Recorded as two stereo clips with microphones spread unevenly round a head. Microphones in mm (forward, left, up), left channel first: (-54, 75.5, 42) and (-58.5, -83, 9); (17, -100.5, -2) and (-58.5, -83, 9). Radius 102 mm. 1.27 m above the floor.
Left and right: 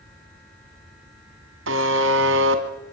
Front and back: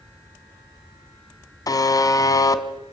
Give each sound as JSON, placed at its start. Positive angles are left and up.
{"t": 1.7, "sound": "a buzzer", "azimuth_deg": -55, "distance_m": 2.5}